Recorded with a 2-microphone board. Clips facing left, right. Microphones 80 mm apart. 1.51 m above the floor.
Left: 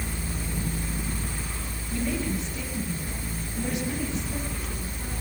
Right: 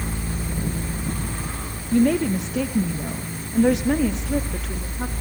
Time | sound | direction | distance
1.9 | a woman speaking | 65° right (ahead or behind) | 1.6 m